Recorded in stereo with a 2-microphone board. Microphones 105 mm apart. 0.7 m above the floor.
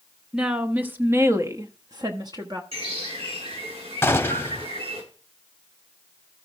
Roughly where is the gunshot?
Left.